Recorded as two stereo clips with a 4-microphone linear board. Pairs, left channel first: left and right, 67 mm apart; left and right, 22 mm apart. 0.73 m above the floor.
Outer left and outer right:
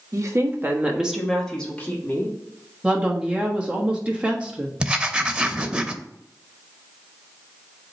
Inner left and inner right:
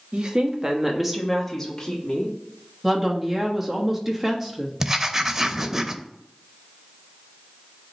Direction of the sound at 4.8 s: 15° right (ahead or behind).